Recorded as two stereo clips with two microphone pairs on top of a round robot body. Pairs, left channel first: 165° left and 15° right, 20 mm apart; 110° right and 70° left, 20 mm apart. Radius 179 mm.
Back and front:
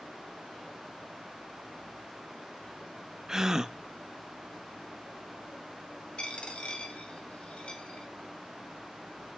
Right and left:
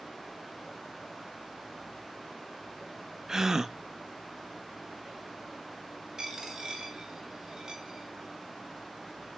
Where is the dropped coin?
130° left, 2 m.